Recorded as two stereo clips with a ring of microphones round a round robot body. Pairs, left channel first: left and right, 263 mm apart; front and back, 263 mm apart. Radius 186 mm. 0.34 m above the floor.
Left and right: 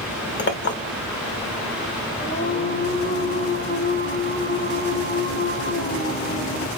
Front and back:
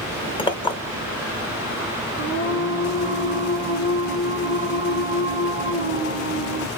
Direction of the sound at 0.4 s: 65° left.